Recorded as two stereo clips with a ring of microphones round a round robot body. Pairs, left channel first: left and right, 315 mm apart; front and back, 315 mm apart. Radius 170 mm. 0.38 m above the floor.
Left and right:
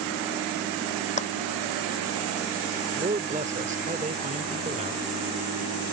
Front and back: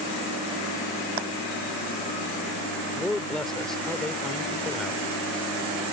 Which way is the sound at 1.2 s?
160° left.